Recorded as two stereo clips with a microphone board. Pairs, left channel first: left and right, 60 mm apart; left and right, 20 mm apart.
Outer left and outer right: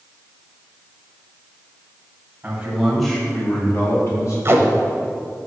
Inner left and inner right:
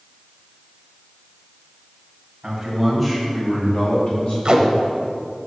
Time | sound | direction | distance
2.4 | a man speaking | 25° right (ahead or behind) | 2.0 m
4.5 | tape being pulled | 45° right (ahead or behind) | 0.8 m